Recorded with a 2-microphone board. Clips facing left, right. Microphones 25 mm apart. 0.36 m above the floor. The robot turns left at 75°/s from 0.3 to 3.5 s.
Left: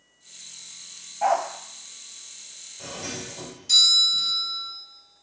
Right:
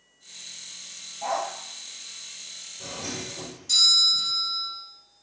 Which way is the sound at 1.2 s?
65° left (ahead or behind).